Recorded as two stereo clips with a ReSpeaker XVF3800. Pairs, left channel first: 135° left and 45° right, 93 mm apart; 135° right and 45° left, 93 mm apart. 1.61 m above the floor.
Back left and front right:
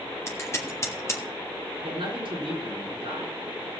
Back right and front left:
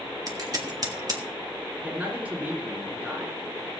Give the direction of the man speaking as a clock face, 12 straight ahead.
1 o'clock.